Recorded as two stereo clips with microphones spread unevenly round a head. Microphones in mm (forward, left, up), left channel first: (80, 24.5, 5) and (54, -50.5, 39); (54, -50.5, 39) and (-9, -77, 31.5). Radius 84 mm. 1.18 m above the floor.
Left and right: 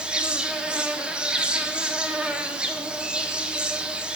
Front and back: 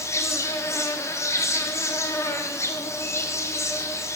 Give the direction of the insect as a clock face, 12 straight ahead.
12 o'clock.